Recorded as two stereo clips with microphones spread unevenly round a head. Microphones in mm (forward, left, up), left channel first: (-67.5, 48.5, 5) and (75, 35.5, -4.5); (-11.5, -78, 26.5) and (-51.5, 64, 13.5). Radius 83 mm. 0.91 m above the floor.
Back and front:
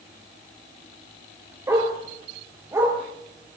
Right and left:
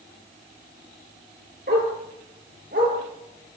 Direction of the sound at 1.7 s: 65° left.